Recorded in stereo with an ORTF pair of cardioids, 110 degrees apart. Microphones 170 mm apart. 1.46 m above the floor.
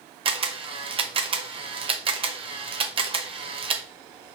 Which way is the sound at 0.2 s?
30° right.